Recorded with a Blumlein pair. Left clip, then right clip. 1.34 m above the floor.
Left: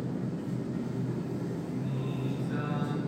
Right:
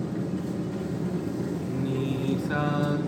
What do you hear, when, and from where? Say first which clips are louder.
0.0 s a machine running: right 4 dB; 40° right, 1.2 m
1.6 s singing: right 7 dB; 55° right, 0.7 m